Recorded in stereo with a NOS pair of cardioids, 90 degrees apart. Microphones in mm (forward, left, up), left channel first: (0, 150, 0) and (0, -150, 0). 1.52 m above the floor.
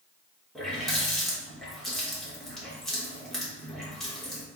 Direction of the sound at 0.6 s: Straight ahead.